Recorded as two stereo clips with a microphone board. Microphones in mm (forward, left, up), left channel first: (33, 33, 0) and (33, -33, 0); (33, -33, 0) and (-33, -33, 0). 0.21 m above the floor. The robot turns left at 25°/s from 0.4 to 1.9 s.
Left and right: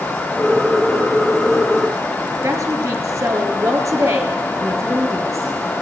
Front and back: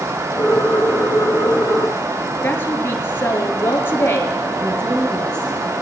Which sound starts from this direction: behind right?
A woman speaking, at 4.6 s.